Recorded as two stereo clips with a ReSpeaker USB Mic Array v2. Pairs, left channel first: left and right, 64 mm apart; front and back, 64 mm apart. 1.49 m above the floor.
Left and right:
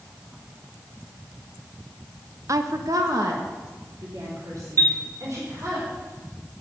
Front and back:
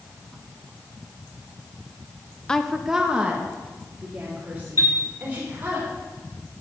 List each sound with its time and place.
2.5 s a woman speaking: 75° right, 0.6 m; by 5.8 s 115° right, 4.5 m
4.8 s a chime: 40° left, 2 m